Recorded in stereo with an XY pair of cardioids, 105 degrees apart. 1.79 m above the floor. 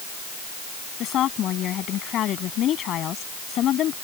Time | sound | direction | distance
1.0 | a woman speaking | 70° left | ?